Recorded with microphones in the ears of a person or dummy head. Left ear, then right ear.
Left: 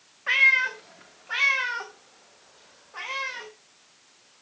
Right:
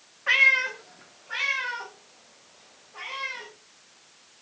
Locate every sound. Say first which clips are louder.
0.3 s a cat meowing: even; 5° right (ahead or behind), 1.2 m; by 3.5 s 55° left (ahead or behind), 3.5 m